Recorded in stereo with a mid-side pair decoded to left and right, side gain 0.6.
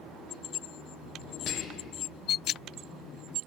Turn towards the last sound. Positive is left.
turn(degrees=60)